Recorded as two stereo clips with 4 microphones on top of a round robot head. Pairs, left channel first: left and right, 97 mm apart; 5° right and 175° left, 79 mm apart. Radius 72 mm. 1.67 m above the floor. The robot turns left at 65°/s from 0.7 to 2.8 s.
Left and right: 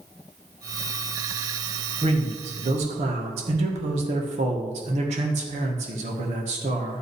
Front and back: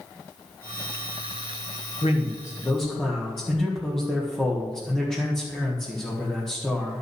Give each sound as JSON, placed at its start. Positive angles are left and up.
{"t": 2.0, "sound": "a man speaking", "azimuth_deg": -40, "distance_m": 1.6}